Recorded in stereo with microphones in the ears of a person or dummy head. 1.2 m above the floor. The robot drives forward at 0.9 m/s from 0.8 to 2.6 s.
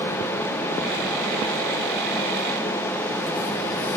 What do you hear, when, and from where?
Only background noise.